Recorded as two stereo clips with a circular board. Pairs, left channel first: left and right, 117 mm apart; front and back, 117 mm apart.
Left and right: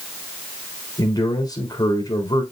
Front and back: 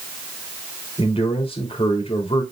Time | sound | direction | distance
1.0 | a man speaking | 35° left | 3 m